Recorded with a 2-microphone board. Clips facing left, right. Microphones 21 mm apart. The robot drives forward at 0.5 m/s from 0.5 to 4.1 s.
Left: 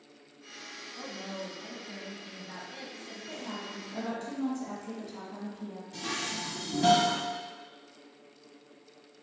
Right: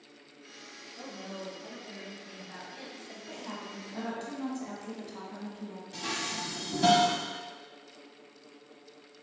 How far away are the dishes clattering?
About 1.0 m.